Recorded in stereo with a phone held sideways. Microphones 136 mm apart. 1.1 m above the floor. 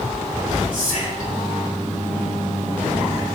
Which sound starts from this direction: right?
Whispering, at 0.7 s.